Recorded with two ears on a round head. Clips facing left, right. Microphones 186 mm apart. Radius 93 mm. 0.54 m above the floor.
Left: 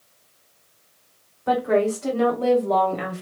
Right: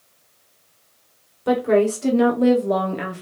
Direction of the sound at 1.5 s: 45° right (ahead or behind).